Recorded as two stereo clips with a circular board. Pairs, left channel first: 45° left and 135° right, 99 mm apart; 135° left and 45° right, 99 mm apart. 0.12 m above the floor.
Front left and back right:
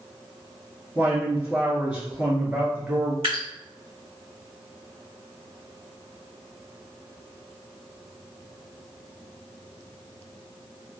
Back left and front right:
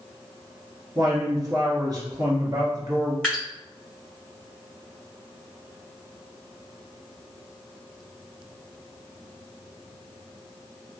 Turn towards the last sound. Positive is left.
turn(degrees=-145)